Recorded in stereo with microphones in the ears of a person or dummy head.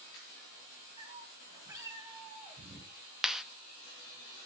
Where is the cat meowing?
25° right (ahead or behind), 6 m; by 2.9 s 20° right (ahead or behind), 4.5 m.